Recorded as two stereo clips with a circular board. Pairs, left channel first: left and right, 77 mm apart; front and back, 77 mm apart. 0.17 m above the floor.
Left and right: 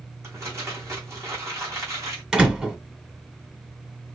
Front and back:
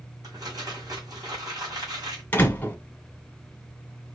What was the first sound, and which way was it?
Crumpling, 145° right.